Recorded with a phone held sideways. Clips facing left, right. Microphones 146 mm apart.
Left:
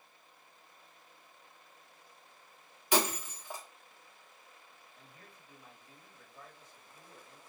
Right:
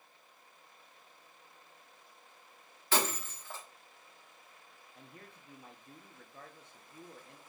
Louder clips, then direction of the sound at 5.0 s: Right 6 dB; 75° right (ahead or behind).